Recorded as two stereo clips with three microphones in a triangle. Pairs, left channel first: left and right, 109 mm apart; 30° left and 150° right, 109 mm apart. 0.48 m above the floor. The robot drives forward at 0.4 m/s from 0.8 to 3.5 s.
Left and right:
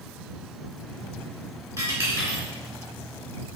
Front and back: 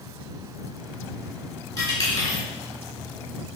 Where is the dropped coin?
30° right, 3 m.